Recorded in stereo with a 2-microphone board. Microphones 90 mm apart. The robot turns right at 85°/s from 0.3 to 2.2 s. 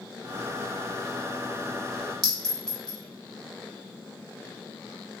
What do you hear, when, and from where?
2.2 s a clink: 5° left (ahead or behind), 0.9 m